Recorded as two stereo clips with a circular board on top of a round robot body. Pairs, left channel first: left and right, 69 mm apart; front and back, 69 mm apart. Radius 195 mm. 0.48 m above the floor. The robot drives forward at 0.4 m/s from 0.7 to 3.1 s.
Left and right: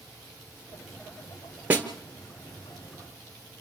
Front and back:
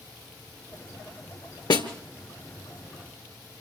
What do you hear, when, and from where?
1.7 s a snare drum: 25° right, 1.7 m